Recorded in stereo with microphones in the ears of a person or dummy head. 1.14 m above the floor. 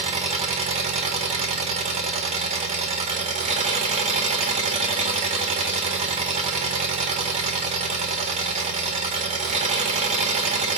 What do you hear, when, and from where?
0.0 s an engine running: 30° right (ahead or behind), 0.9 m